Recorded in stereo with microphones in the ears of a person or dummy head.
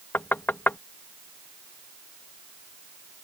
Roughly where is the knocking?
Centre.